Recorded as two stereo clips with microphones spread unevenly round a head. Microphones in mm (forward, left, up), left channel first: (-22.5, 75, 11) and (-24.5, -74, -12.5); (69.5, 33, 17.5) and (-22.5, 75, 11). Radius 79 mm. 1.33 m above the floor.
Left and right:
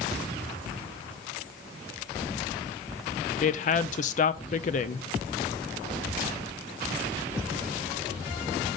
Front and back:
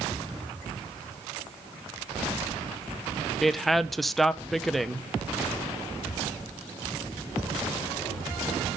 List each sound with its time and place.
3.4 s a woman speaking: 70° left, 0.5 m